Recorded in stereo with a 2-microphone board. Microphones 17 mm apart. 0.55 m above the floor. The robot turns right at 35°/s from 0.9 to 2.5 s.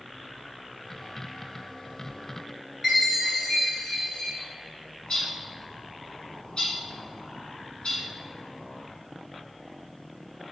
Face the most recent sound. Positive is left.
turn(degrees=60)  # may be behind; listen again after turning